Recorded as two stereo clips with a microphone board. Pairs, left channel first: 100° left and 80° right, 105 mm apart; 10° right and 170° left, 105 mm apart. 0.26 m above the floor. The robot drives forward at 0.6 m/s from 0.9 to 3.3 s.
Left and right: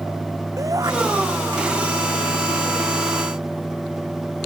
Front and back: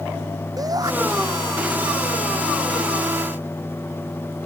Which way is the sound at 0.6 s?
135° right.